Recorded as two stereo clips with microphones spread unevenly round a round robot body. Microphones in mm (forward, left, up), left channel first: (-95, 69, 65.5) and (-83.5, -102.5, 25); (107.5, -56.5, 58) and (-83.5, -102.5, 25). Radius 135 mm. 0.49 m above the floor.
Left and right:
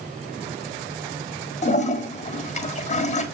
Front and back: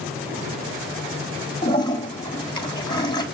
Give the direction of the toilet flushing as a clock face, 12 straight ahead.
9 o'clock.